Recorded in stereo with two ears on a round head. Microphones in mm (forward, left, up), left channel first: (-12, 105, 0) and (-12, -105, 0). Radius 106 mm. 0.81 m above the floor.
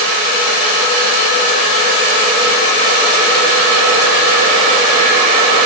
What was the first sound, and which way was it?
Only background noise.